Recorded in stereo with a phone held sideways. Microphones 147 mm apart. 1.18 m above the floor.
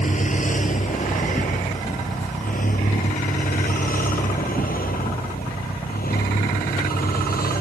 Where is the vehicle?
55° left (ahead or behind); by 7.6 s 80° left.